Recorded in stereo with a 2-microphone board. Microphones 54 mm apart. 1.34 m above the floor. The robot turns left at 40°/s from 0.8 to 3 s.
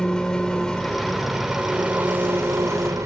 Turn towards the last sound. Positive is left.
turn(degrees=-75)